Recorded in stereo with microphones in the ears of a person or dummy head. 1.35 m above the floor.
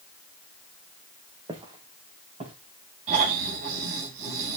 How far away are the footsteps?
About 3 m.